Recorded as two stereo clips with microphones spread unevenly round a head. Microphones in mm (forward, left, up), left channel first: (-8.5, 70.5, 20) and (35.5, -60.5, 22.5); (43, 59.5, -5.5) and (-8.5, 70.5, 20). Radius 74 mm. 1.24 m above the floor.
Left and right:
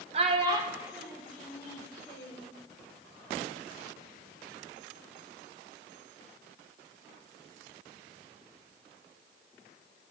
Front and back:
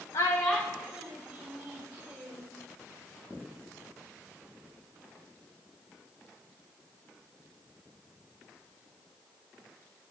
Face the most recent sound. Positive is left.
turn(degrees=-175)